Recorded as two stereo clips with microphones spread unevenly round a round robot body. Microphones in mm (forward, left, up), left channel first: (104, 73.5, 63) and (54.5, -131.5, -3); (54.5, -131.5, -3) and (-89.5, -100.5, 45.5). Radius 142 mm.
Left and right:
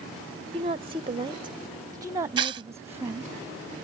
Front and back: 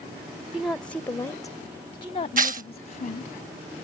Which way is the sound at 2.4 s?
160° right.